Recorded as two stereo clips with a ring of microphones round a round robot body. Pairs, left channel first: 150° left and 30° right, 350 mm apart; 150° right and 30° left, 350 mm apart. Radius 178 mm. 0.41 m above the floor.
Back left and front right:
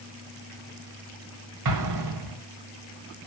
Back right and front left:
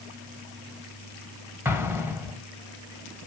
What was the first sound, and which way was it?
An explosion, 50° right.